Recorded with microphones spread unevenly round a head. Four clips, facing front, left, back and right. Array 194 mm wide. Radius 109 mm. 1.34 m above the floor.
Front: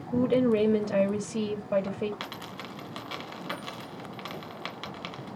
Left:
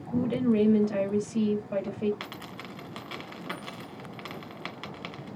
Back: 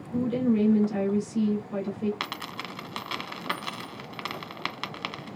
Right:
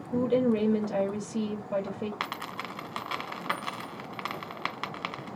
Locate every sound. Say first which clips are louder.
0.1 s a woman speaking: even, front 2 dB; 25° right, 3 m
2.2 s a dropped coin: right 5 dB, back 3 dB; 115° right, 1.7 m